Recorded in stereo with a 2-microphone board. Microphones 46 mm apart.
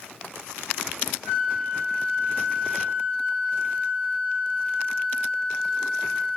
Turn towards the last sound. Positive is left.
turn(degrees=35)  # may be behind; listen again after turning